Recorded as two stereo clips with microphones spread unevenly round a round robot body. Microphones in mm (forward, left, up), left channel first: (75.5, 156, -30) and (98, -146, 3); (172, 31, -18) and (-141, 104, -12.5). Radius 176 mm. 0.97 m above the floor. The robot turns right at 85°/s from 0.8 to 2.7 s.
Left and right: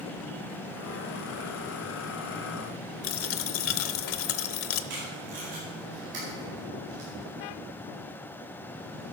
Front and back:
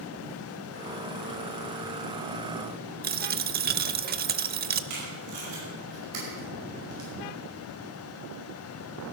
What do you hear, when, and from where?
3.0 s a dropped coin: 120° left, 0.8 m
4.9 s tape being pulled: 150° right, 5.5 m